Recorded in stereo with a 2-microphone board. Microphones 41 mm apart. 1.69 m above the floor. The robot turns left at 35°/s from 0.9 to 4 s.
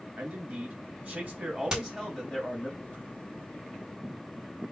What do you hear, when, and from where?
0.2 s a man speaking: 130° right, 2 m; by 2.7 s 170° left, 2 m
1.7 s hammering: 20° right (ahead or behind), 2 m; by 1.8 s 15° right (ahead or behind), 2 m